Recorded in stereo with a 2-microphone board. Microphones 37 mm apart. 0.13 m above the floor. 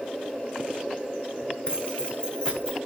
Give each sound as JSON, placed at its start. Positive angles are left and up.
{"t": 1.7, "sound": "keys jangling", "side_deg": 25, "distance_m": 8.5}